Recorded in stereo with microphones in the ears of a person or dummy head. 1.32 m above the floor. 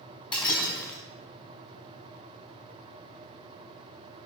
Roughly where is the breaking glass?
Centre.